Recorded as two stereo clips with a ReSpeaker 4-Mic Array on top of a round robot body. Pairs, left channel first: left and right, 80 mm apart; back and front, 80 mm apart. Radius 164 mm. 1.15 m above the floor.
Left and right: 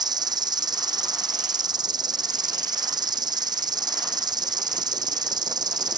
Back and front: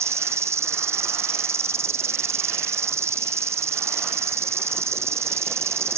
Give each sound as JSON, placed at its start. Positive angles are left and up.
{"t": 0.0, "sound": "an insect", "azimuth_deg": -55}